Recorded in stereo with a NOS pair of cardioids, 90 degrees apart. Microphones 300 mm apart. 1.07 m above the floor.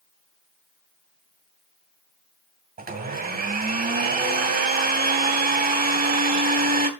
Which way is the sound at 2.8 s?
30° right.